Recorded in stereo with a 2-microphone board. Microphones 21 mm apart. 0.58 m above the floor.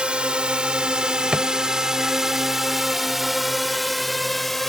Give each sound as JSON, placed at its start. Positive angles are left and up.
{"t": 0.0, "sound": "a drone", "side_deg": -60}
{"t": 1.3, "sound": "a drawer", "side_deg": -55}